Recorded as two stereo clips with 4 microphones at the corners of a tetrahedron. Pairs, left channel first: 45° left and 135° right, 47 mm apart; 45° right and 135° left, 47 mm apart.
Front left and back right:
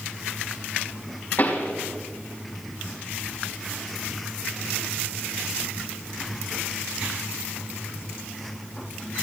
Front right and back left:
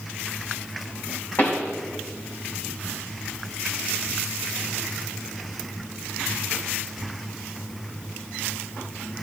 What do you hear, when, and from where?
1.4 s a pop: straight ahead, 4 m